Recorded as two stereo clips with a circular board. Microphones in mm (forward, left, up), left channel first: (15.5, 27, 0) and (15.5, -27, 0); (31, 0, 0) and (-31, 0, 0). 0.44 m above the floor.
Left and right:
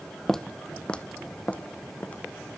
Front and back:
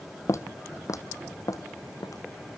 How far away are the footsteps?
About 0.6 m.